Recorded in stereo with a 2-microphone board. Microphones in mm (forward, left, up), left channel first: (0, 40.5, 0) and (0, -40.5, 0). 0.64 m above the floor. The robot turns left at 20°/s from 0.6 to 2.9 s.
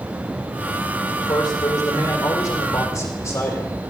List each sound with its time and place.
1.1 s a man speaking: 80° left, 1.8 m; by 3.8 s 40° left, 1.8 m